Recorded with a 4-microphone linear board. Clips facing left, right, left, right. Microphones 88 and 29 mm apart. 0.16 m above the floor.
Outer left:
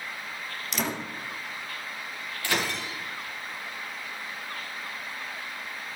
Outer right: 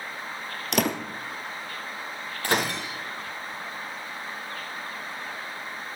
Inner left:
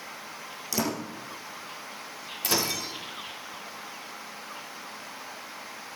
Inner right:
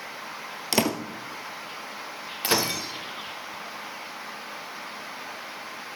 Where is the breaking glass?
40° right (ahead or behind), 4.5 m.